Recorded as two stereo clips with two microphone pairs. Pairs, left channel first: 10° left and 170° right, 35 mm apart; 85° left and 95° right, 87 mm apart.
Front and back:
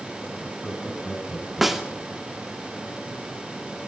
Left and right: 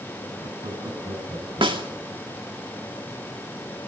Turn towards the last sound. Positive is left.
turn(degrees=-85)